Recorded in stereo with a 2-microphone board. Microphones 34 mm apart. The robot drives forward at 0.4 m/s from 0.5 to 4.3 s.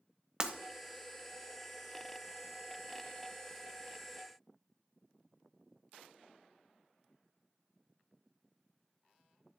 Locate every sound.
0.4 s breaking glass: 30° right (ahead or behind), 1.3 m